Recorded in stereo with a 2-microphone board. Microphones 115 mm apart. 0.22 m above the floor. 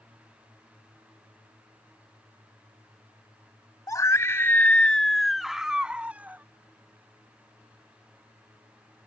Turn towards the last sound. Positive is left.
turn(degrees=-15)  # may be behind; listen again after turning